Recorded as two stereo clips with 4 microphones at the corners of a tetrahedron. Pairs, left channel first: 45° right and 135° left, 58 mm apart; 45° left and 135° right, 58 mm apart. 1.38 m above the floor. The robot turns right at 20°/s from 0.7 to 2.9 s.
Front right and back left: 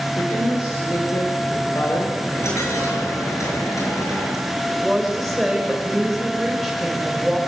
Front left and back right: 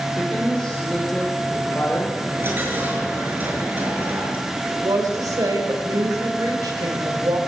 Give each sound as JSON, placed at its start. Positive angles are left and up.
{"t": 0.2, "sound": "a woman speaking", "azimuth_deg": -35, "distance_m": 5.5}
{"t": 2.2, "sound": "a dropped coin", "azimuth_deg": -85, "distance_m": 6.5}
{"t": 4.7, "sound": "a woman speaking", "azimuth_deg": -135, "distance_m": 6.0}